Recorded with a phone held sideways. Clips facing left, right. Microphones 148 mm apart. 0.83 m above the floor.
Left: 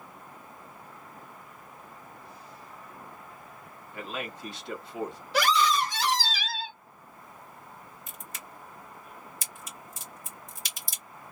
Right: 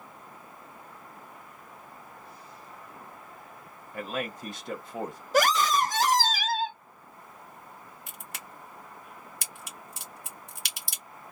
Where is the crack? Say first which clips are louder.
Right 1 dB; 70° right (ahead or behind), 1.3 m.